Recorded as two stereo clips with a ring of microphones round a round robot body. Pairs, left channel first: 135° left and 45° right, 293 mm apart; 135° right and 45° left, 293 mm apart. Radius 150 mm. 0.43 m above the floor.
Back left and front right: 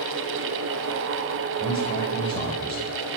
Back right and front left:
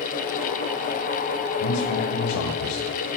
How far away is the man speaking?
About 9.5 m.